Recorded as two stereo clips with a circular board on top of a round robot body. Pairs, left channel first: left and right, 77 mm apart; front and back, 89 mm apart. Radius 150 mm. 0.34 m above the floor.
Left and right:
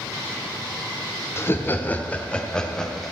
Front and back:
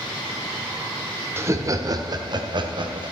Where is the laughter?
130° left, 1.5 m; by 3.1 s 175° left, 2.5 m.